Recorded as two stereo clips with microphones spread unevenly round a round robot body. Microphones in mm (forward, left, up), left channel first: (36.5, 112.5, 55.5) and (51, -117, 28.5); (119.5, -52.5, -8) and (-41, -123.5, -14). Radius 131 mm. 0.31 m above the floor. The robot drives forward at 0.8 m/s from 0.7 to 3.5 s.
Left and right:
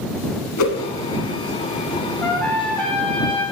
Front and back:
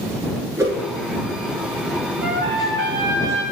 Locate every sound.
0.6 s a whoosh: 125° left, 1.0 m; by 0.8 s 130° left, 1.1 m
2.2 s a trumpet: straight behind, 1.1 m